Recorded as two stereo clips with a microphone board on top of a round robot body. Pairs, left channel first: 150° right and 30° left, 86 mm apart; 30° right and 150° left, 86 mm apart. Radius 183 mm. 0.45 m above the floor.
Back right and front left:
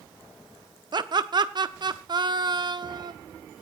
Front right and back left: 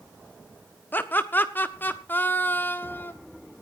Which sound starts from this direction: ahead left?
Laughter, at 0.9 s.